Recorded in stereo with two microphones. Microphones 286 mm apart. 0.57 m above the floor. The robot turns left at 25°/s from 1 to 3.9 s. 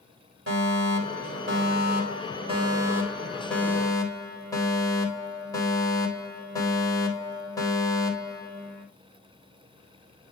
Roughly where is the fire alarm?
Behind right.